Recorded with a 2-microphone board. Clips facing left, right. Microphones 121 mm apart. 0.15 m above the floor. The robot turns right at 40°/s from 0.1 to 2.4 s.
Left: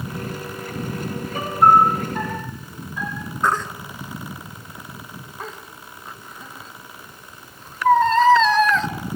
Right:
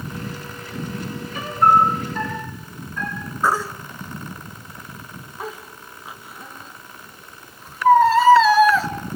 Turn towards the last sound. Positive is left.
turn(degrees=-5)  # may be behind; listen again after turning